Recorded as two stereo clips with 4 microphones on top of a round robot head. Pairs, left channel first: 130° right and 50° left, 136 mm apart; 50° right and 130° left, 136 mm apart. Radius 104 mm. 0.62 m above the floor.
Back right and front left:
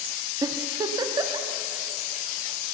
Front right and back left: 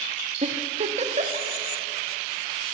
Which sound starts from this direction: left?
A giggle, at 0.4 s.